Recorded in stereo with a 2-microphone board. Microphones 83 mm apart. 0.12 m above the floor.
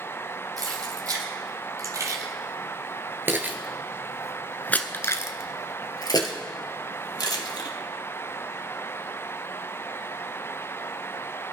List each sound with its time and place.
0.6 s keys jangling: 45° right (ahead or behind), 3.5 m; by 7.7 s 60° left (ahead or behind), 2.5 m